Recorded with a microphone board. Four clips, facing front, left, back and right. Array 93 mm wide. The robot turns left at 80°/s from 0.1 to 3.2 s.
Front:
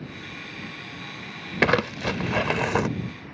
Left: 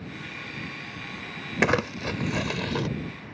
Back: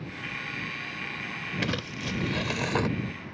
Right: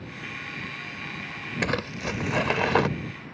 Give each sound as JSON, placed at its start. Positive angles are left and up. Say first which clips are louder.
{"t": 1.6, "sound": "crumpling", "louder": "left 5 dB, front 13 dB", "azimuth_deg": 25}